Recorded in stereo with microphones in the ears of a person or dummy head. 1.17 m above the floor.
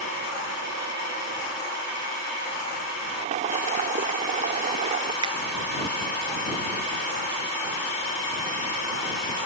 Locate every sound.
3.2 s boiling: 35° right (ahead or behind)
5.2 s a finger snap: 30° right (ahead or behind)